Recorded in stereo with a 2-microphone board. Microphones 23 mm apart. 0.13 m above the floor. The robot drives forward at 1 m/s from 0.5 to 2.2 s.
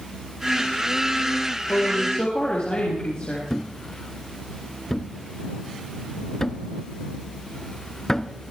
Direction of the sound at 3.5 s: 25° left (ahead or behind).